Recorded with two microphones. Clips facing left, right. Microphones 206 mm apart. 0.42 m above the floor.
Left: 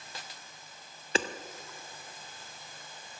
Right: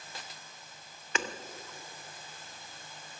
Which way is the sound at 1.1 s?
35° left (ahead or behind).